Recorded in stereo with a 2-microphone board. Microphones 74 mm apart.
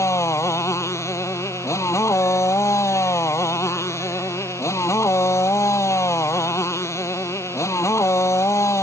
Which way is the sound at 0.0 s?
40° left (ahead or behind).